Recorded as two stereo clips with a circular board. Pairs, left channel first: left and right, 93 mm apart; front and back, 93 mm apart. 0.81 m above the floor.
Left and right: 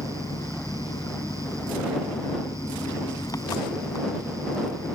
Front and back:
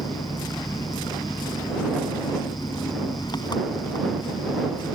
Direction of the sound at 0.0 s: 40° left.